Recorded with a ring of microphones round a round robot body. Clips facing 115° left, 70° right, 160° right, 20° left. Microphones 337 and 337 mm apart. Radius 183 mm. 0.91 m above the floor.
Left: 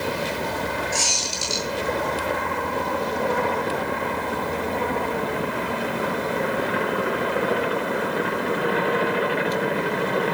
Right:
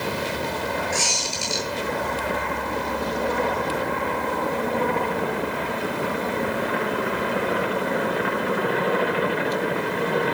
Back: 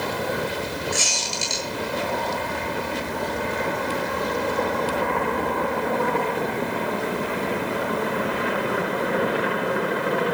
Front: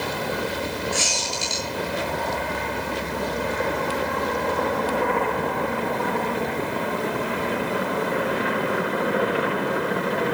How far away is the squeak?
About 8.5 m.